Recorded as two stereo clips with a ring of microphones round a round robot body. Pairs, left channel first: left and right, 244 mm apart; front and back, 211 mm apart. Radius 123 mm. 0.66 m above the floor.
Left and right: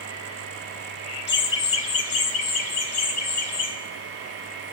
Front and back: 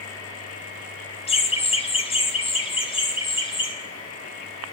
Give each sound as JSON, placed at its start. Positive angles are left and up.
{"t": 1.3, "sound": "laughter", "azimuth_deg": 55, "distance_m": 0.9}